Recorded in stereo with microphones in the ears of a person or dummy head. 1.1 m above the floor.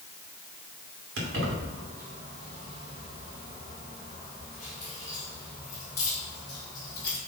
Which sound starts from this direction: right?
Keys jangling, at 1.2 s.